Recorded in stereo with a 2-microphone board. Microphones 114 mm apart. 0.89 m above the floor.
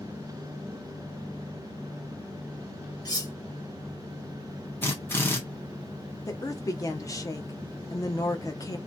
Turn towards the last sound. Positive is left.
turn(degrees=30)  # may be behind; listen again after turning